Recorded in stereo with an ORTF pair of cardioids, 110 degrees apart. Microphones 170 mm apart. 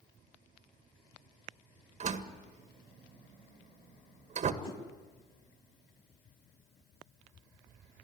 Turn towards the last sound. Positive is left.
turn(degrees=30)